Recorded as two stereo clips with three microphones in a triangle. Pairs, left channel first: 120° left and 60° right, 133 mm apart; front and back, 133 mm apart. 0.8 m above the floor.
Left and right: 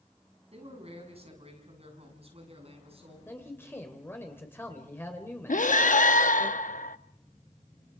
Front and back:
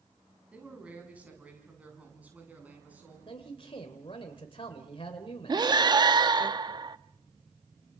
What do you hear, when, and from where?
0.5 s a man speaking: 100° right, 7.5 m
3.3 s a man speaking: 50° left, 2.5 m
5.5 s breathing: 120° left, 0.7 m